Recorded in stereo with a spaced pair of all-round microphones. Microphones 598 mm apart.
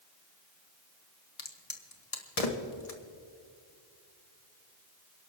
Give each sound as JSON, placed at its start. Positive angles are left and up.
{"t": 1.4, "sound": "a crack", "side_deg": 75, "distance_m": 1.6}